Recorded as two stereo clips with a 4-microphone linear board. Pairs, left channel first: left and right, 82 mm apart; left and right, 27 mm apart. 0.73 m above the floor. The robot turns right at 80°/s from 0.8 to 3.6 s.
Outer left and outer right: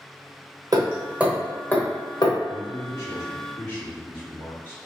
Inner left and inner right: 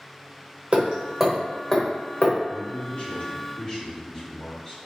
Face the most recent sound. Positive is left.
turn(degrees=140)